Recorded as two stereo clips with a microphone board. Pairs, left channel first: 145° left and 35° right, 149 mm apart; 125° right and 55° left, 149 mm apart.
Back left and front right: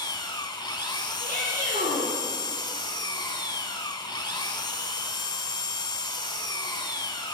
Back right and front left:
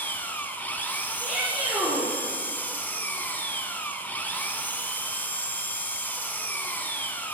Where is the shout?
35° right, 7.5 m.